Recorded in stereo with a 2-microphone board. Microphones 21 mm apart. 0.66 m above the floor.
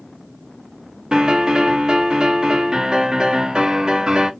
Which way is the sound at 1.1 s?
40° right (ahead or behind).